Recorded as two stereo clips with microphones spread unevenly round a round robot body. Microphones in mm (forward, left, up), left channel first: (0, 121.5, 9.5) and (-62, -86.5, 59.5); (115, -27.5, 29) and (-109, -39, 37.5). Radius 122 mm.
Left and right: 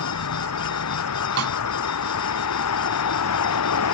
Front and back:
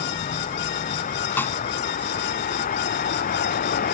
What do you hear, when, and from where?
0.0 s a vehicle: 65° left; by 3.9 s 60° left
1.4 s a snare drum: 80° right